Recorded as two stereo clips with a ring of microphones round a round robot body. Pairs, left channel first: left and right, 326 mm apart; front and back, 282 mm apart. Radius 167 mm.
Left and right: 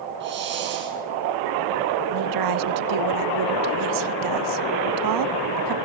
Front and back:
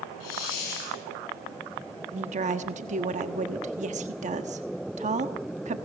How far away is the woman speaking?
About 1.1 m.